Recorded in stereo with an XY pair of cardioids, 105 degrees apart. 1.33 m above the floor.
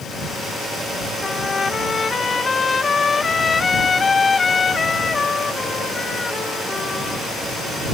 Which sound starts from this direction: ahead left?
A trumpet, at 1.2 s.